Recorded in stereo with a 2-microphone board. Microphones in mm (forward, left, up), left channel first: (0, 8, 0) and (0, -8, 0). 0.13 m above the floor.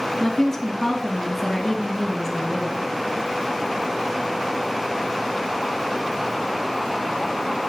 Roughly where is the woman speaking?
Centre.